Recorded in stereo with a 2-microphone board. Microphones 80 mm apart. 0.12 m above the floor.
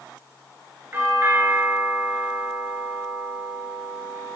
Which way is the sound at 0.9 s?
30° right (ahead or behind).